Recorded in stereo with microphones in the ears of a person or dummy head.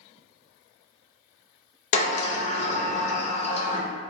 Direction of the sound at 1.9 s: 40° left (ahead or behind).